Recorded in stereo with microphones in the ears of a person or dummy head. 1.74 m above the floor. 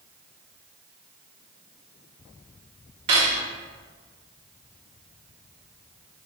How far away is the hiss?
I don't hear a hiss.